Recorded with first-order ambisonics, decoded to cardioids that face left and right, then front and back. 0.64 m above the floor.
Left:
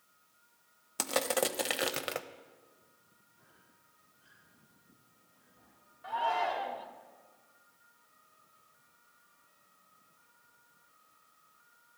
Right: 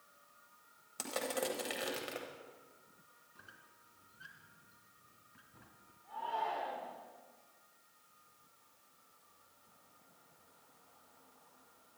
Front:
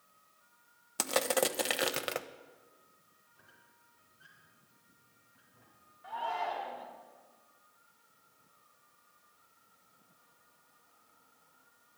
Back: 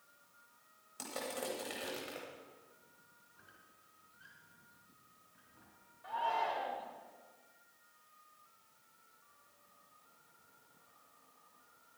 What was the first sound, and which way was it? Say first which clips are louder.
Crushing: left 7 dB, front 12 dB; 35° left.